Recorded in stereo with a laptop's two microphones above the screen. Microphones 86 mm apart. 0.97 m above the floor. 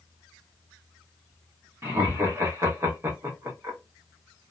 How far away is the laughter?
About 0.9 m.